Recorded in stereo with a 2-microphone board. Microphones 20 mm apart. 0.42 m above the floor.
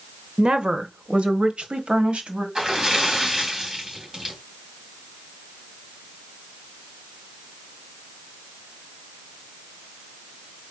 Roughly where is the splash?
Right.